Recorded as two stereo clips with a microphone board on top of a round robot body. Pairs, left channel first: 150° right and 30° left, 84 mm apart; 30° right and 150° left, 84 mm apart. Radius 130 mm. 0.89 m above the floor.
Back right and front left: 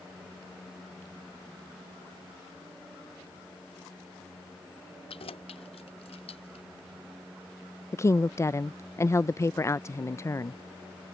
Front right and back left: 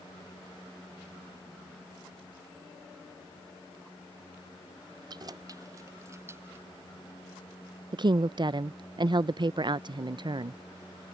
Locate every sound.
5.1 s keys jangling: 165° right; by 6.7 s 145° right
7.9 s a woman speaking: 160° left